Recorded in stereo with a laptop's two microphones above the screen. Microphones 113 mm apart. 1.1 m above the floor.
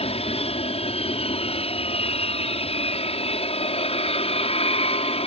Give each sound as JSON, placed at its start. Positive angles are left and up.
{"t": 0.0, "sound": "an aircraft", "side_deg": 60}